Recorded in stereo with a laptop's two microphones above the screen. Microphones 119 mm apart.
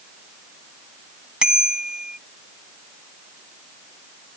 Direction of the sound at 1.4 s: 5° right (ahead or behind).